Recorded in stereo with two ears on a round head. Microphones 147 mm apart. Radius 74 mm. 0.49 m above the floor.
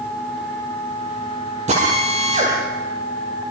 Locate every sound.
1.7 s a drill: 45° right (ahead or behind), 8.5 m